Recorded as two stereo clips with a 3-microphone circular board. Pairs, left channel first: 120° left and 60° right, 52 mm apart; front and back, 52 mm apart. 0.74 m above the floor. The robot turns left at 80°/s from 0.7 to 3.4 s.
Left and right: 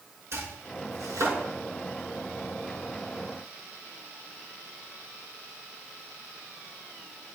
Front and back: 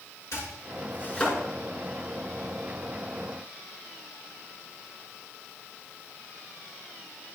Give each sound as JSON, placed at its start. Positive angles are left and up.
{"t": 0.3, "sound": "chopping", "azimuth_deg": -30, "distance_m": 6.5}